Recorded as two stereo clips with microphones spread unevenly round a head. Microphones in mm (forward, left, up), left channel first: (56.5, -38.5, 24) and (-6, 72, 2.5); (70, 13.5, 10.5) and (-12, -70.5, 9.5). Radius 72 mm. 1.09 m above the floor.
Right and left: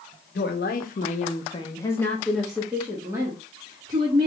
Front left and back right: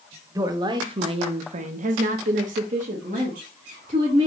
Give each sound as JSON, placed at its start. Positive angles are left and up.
{"t": 0.3, "sound": "a woman speaking", "azimuth_deg": -75, "distance_m": 0.9}